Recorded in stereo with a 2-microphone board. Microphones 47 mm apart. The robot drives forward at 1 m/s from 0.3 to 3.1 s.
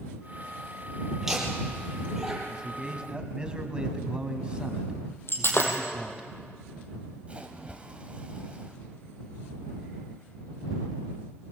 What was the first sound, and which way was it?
Laughter, 10° right (ahead or behind).